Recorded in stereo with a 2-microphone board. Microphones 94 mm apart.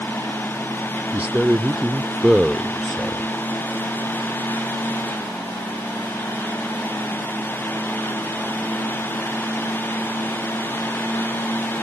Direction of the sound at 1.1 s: 15° right (ahead or behind).